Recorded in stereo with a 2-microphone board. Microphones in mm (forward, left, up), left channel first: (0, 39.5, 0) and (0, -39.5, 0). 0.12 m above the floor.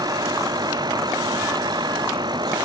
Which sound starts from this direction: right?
A vehicle, at 0.0 s.